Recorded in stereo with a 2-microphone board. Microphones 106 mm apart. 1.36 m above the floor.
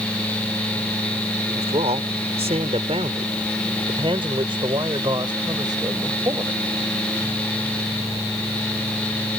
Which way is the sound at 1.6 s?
85° right.